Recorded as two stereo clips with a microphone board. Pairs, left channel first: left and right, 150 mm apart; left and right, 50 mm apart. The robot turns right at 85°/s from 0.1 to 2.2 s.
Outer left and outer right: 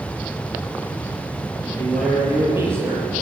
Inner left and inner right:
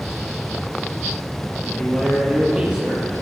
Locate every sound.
1.7 s a man speaking: 150° left, 5.5 m; by 3.1 s 165° right, 5.5 m